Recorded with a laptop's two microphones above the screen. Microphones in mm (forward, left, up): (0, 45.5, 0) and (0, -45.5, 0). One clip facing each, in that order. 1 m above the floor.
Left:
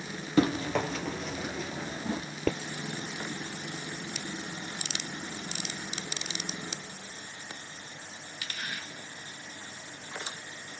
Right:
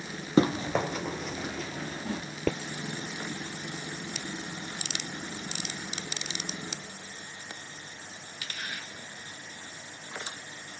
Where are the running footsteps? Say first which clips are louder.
Right 1 dB; 25° right (ahead or behind), 1.2 m; by 2.2 s 30° left (ahead or behind), 1.2 m.